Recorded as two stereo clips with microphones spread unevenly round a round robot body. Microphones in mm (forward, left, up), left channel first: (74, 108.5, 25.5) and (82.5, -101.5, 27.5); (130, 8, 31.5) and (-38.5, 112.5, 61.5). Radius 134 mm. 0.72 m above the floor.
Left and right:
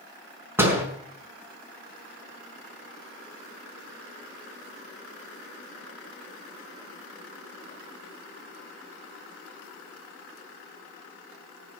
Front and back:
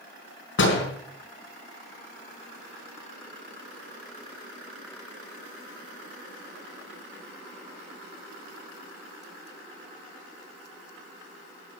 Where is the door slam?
10° right, 5 m.